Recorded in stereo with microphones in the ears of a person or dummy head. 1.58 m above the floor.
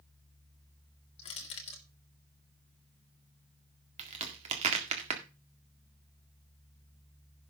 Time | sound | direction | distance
1.2 | crushing | 30° left (ahead or behind) | 1.6 m
4.0 | a crack | 35° right (ahead or behind) | 1.8 m